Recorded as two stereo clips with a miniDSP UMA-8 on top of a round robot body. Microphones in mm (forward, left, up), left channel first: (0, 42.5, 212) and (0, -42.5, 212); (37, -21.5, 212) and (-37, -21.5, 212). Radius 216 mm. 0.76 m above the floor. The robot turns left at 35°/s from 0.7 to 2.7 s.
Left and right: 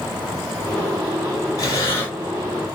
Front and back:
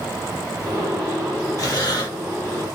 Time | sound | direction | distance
1.6 | breathing | 45° left | 1.4 m